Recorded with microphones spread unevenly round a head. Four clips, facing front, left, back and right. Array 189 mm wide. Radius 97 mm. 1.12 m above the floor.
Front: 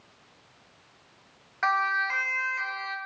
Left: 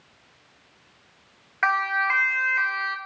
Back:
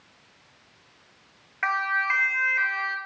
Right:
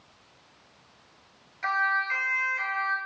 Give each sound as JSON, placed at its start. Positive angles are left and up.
{"t": 1.6, "sound": "a siren", "azimuth_deg": 75, "distance_m": 4.5}